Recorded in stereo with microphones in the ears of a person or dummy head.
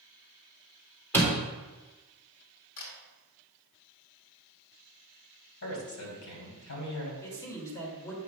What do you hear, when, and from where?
1.1 s a door slam: 15° left (ahead or behind), 2.5 m
2.8 s a camera shutter: 60° left (ahead or behind), 2 m
5.6 s a man speaking: 75° left (ahead or behind), 3 m
7.2 s a man speaking: 15° left (ahead or behind), 2.5 m